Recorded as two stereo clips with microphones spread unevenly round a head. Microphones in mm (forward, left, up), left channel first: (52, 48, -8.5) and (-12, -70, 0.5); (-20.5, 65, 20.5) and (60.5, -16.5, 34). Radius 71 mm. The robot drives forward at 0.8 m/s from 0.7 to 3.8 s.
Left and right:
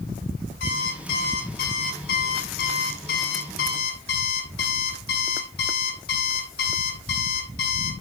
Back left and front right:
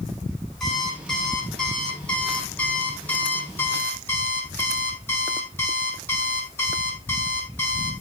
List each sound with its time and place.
0.6 s an alarm clock: 45° left, 7.5 m; by 7.9 s 65° left, 6 m